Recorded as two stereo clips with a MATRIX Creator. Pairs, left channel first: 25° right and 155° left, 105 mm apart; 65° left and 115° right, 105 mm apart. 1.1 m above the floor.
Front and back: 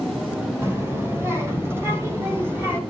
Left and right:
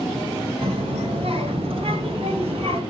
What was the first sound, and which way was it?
A child speaking, 135° right.